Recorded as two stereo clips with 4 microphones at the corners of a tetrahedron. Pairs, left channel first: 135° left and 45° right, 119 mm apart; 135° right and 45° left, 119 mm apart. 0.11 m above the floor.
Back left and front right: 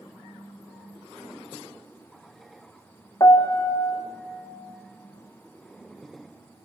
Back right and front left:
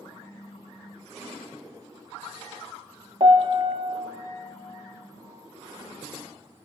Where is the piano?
80° left, 0.7 m.